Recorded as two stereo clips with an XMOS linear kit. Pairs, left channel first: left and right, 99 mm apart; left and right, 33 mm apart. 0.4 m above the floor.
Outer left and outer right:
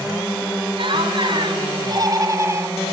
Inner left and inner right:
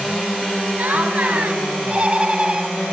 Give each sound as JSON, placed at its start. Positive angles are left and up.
{"t": 0.8, "sound": "laughter", "side_deg": -60, "distance_m": 3.5}